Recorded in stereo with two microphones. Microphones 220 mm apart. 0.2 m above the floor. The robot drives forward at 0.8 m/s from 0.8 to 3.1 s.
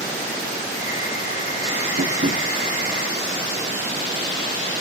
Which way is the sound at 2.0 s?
55° right (ahead or behind).